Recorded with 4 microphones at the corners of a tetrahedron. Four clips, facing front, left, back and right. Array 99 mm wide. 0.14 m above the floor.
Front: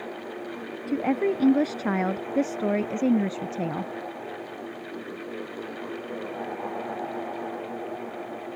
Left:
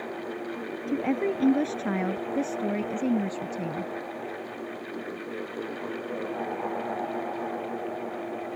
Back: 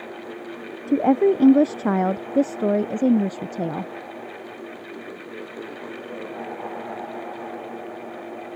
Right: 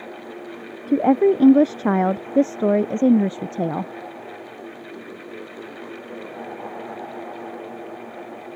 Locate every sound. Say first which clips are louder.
0.9 s a woman speaking: right 11 dB, back 7 dB; 125° right; by 3.9 s 110° right